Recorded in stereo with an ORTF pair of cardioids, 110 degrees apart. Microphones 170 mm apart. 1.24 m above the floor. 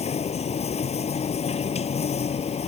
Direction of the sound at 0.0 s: 40° left.